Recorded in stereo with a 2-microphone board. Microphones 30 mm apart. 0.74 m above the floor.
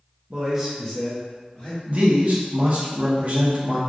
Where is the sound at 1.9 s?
45° right (ahead or behind), 0.9 m.